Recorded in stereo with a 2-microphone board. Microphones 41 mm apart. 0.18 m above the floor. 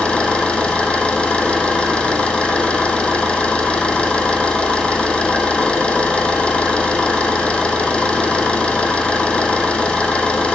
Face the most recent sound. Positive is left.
turn(degrees=30)  # may be behind; listen again after turning